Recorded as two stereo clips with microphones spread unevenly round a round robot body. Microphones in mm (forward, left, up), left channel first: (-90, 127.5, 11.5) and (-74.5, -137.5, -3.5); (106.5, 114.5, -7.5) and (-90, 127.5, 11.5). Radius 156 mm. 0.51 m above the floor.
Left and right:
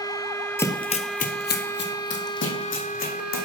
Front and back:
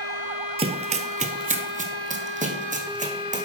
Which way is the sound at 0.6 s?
165° left.